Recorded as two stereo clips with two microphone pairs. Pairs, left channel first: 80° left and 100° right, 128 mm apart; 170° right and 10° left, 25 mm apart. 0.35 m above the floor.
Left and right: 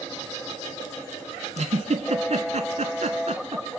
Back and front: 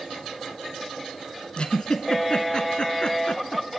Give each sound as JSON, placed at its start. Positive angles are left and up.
{"t": 1.6, "sound": "a giggle", "azimuth_deg": -125, "distance_m": 1.4}